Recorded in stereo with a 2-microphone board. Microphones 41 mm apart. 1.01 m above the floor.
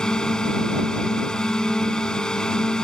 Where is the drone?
15° left (ahead or behind).